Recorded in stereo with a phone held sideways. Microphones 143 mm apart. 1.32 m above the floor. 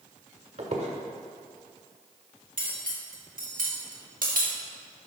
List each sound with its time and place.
0.6 s a squeak: 50° right (ahead or behind), 1.4 m
2.6 s cutlery clinking: 75° right (ahead or behind), 1.7 m